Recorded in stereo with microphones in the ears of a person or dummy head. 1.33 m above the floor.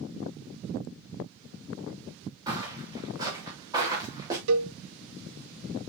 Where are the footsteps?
20° right (ahead or behind), 7 m.